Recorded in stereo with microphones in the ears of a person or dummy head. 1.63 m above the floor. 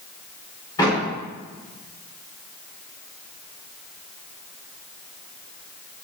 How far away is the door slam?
About 4.5 m.